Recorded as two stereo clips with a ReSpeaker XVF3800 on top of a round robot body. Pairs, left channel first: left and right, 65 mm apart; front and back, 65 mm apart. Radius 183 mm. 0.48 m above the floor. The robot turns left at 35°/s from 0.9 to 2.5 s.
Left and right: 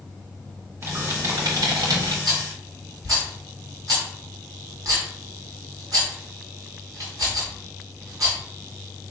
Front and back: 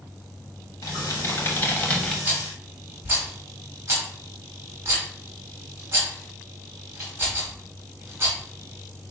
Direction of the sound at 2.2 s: 115° right.